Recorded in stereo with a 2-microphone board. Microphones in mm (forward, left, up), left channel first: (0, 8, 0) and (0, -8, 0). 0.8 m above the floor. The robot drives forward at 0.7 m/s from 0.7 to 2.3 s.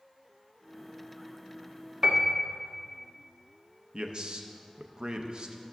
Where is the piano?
35° right (ahead or behind), 0.5 m.